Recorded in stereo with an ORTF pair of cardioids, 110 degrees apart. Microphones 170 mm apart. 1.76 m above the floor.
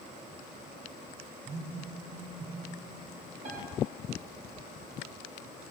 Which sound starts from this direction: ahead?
A phone buzzing, at 1.4 s.